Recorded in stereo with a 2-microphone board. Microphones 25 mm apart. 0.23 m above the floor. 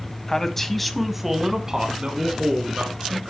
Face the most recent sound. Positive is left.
turn(degrees=-40)  # may be behind; listen again after turning